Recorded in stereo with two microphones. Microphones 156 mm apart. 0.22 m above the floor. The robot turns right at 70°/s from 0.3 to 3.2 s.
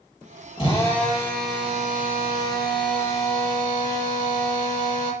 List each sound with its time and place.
0.6 s a drill: 140° left, 7 m; by 5.1 s 35° right, 7 m